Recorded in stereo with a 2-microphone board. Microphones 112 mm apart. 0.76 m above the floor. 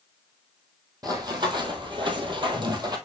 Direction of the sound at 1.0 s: 35° right (ahead or behind).